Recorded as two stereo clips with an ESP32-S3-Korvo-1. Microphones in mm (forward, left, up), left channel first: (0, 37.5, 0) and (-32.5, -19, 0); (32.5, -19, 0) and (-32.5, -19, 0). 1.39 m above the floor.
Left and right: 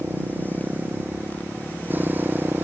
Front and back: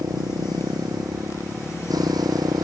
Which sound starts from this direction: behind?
A motorcycle, at 0.0 s.